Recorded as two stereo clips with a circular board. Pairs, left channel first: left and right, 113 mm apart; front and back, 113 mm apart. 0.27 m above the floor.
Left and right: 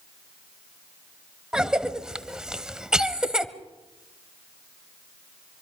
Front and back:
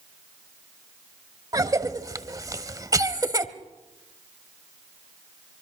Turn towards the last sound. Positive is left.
turn(degrees=-170)